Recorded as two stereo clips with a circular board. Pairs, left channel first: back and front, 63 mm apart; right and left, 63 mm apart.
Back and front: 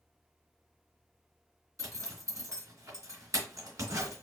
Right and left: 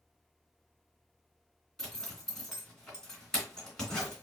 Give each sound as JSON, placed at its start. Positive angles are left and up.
{"t": 1.8, "sound": "a zipper", "azimuth_deg": -10, "distance_m": 3.0}